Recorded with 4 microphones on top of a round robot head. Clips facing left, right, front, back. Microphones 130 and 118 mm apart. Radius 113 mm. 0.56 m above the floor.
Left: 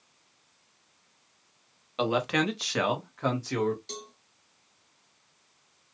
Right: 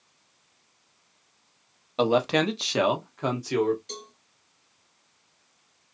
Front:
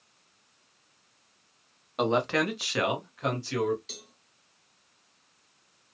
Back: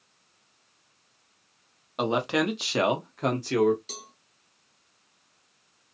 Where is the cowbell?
140° left, 1.7 m.